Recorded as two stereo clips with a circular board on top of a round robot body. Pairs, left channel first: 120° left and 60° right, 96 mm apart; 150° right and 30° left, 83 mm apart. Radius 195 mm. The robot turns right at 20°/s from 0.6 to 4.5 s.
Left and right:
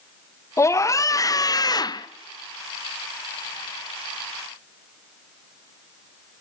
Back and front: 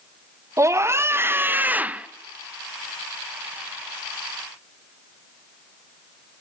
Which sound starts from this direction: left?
A scream, at 0.6 s.